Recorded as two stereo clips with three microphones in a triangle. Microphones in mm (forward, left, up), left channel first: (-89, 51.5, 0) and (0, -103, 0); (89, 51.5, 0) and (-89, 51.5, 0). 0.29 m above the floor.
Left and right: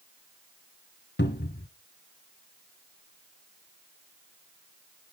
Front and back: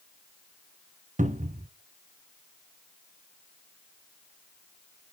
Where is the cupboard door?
135° left, 1.1 m.